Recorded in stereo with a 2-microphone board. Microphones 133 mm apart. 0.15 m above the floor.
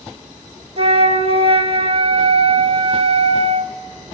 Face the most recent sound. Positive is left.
turn(degrees=-50)  # may be behind; listen again after turning